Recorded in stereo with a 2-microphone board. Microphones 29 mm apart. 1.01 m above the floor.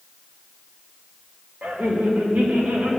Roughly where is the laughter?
Right.